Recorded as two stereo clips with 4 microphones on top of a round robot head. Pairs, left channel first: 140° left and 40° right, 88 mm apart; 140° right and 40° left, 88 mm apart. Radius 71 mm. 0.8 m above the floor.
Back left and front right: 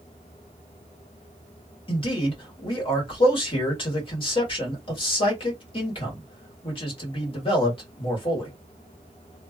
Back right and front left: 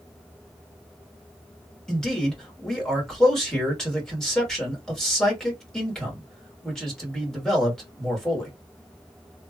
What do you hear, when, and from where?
1.9 s a man speaking: 135° left, 1.6 m